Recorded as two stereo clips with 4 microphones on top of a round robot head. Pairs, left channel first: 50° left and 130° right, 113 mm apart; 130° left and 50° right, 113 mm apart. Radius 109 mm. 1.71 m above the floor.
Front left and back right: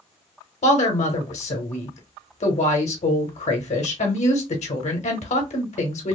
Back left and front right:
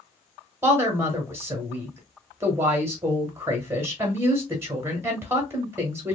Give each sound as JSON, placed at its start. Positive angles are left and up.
{"t": 0.6, "sound": "a woman speaking", "azimuth_deg": 20, "distance_m": 1.0}